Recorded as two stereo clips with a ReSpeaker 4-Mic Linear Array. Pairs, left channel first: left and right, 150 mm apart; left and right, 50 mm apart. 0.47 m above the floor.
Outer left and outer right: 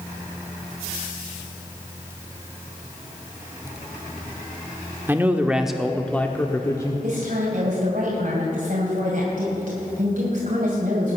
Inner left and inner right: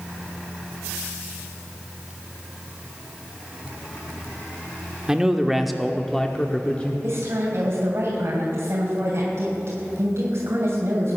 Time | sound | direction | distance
5.1 | a man speaking | 15° right (ahead or behind) | 1.0 m
7.0 | a woman speaking | 65° right (ahead or behind) | 2.5 m